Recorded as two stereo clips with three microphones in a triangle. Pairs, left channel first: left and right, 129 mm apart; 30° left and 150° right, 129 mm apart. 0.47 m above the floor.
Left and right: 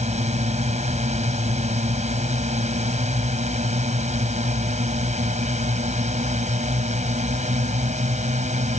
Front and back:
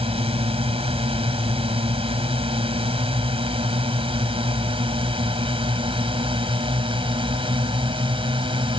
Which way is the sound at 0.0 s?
110° right.